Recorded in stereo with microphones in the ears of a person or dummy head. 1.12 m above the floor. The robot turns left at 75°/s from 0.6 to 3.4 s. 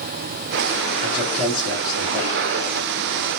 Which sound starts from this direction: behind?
A man speaking, at 1.0 s.